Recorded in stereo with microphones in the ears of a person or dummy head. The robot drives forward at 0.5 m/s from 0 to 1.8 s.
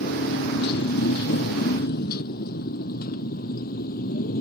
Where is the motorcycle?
55° left (ahead or behind); by 4.4 s 50° left (ahead or behind).